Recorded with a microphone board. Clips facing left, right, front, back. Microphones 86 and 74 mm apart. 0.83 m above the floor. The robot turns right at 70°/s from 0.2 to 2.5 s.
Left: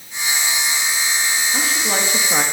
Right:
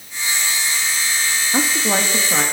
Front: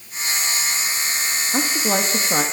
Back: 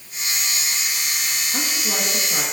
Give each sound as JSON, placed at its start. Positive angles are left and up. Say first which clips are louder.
{"t": 1.5, "sound": "a woman speaking", "louder": "right 6 dB, front 7 dB", "azimuth_deg": -45, "distance_m": 1.2}